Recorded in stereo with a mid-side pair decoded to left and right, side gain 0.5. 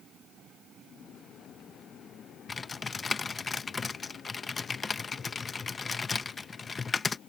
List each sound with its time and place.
2.5 s typing on a keyboard: 30° left